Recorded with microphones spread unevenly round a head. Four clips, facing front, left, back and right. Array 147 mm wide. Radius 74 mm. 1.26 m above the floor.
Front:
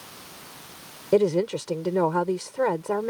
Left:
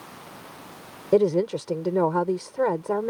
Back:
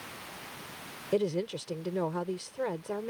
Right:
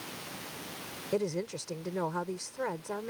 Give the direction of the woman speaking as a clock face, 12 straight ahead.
10 o'clock.